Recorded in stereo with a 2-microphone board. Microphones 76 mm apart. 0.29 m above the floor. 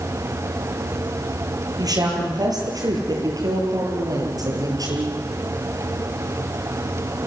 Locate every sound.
1.8 s a woman speaking: 55° right (ahead or behind), 9 m; by 5.2 s 50° right (ahead or behind), 7 m